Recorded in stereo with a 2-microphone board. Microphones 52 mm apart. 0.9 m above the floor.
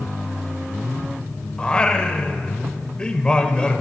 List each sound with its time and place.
1.6 s singing: 15° left (ahead or behind), 0.9 m